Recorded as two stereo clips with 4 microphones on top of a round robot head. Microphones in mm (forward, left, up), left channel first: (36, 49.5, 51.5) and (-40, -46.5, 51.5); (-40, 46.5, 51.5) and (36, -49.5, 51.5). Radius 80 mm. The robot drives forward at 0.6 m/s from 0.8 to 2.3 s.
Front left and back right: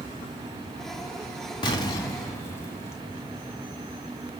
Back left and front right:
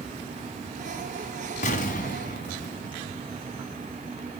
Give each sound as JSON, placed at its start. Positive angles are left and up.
{"t": 1.6, "sound": "an explosion", "azimuth_deg": 105, "distance_m": 1.4}